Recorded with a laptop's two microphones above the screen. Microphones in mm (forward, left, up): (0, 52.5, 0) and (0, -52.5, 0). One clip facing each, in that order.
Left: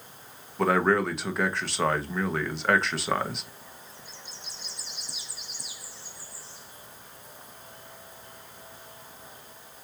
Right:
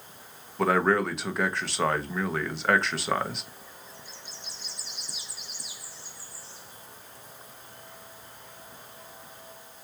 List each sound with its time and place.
0.6 s a man speaking: centre (ahead or behind), 1.0 m